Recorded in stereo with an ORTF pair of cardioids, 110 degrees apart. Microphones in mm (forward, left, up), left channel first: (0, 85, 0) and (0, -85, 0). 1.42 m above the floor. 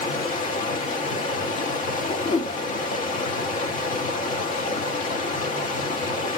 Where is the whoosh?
45° left, 0.9 m.